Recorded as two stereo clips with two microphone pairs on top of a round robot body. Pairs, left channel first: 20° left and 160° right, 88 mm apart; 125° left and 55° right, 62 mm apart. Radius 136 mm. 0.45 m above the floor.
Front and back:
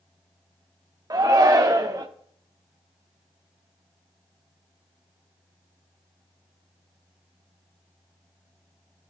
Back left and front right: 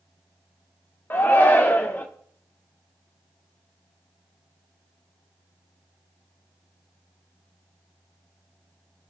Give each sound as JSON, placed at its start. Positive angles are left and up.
{"t": 1.1, "sound": "a shout", "azimuth_deg": 165, "distance_m": 1.3}